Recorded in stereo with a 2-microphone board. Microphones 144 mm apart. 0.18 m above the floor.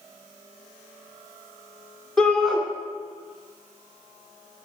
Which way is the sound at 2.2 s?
5° left (ahead or behind).